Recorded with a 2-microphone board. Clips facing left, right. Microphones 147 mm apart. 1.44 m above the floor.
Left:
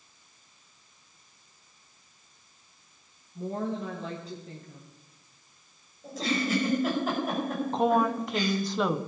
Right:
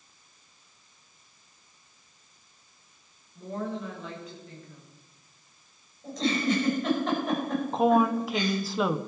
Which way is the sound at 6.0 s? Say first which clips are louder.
Right 3 dB; 5° left (ahead or behind).